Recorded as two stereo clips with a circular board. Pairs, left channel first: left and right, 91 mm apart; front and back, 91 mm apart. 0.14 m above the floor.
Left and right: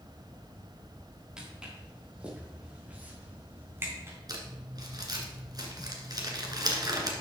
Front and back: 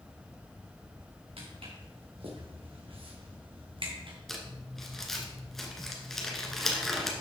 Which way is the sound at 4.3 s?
85° right.